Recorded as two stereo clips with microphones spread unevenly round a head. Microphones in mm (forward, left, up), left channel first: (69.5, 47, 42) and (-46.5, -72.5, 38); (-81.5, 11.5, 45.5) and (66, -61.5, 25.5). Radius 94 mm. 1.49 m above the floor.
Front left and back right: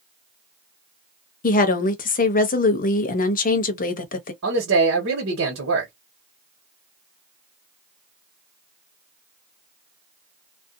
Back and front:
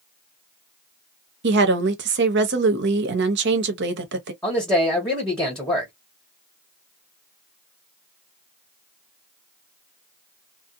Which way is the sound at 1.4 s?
5° left.